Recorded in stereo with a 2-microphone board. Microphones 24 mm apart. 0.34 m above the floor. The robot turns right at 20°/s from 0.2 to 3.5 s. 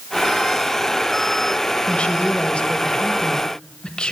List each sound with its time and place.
1.9 s a woman speaking: 85° left, 1.2 m; by 4.1 s 115° left, 1.2 m